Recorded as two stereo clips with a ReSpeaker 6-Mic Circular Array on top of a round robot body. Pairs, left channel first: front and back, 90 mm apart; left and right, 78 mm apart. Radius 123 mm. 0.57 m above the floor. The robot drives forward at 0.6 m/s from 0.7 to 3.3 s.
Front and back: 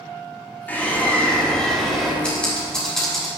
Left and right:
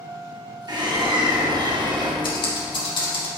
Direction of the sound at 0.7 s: 70° right.